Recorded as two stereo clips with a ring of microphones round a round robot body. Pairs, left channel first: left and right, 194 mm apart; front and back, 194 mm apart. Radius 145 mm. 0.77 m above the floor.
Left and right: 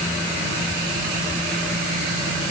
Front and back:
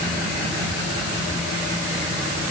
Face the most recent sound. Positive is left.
No sound to turn to.